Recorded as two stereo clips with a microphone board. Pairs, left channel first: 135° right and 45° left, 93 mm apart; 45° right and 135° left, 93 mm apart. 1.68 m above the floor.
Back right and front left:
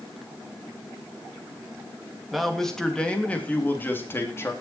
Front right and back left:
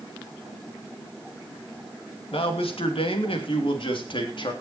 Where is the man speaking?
45° right, 3 m; by 4.5 s 75° right, 3.5 m.